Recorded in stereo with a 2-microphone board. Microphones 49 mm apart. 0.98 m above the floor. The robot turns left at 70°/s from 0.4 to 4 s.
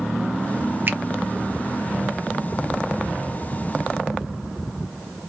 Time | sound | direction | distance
0.9 | a finger snap | 40° right (ahead or behind) | 0.6 m